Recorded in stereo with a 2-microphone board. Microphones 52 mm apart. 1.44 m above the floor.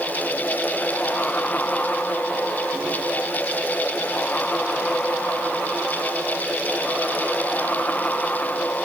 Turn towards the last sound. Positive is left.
No sound to turn to.